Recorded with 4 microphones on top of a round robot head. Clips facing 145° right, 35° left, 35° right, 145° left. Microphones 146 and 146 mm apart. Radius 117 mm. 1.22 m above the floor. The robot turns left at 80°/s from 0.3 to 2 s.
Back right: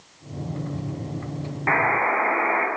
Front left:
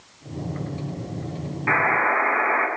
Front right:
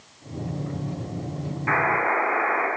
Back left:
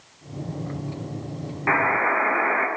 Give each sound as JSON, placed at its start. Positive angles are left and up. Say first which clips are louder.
{"t": 1.7, "sound": "a buzzer", "louder": "even, back left 1 dB", "azimuth_deg": 175, "distance_m": 9.5}